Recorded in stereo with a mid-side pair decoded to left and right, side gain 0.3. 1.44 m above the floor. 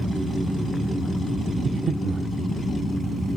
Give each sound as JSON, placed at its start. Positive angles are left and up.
{"t": 1.6, "sound": "breathing", "azimuth_deg": -60, "distance_m": 1.0}